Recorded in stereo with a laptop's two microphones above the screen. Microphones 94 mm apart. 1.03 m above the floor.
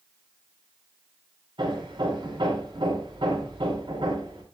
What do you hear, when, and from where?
1.6 s hammering: 65° right (ahead or behind), 4 m